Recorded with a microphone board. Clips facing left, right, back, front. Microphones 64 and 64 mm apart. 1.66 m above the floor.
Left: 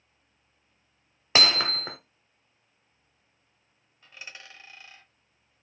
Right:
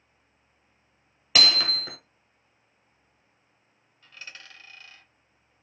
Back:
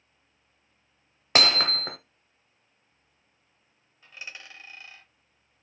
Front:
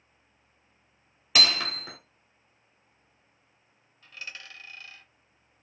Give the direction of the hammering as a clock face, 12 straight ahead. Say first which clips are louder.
Left 1 dB, back 3 dB; 7 o'clock.